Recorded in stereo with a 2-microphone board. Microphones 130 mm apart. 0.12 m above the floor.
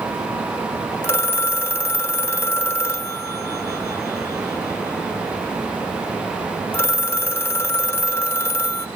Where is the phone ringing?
20° left (ahead or behind), 0.7 m.